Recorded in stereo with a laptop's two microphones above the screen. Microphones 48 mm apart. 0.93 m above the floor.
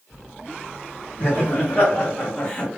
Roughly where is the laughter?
Left.